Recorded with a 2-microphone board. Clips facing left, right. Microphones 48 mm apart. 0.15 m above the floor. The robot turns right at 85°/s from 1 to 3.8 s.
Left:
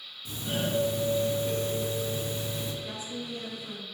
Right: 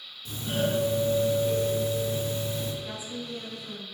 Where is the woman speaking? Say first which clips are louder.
Right 1 dB; 25° right (ahead or behind), 1.1 m; by 3.9 s 5° left (ahead or behind), 1.1 m.